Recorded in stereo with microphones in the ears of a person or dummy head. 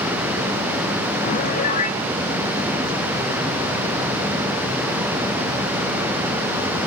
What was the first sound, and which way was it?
A piano, 45° left (ahead or behind).